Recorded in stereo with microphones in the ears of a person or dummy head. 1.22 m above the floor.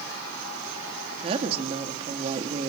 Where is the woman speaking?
35° right (ahead or behind), 2 m.